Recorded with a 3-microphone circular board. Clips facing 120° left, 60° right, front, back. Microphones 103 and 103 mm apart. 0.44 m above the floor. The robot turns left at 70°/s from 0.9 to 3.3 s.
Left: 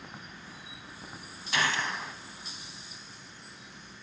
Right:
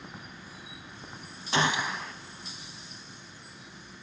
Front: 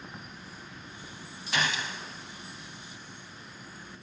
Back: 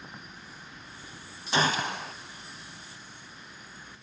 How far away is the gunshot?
About 0.5 m.